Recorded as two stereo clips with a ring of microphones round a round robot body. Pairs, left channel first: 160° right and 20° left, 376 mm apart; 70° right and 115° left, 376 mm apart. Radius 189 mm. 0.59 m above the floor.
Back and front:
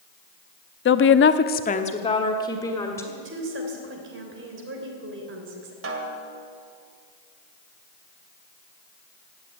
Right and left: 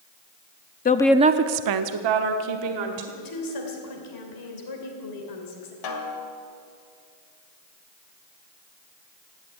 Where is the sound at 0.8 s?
120° right, 0.6 m; by 3.1 s 120° left, 2 m.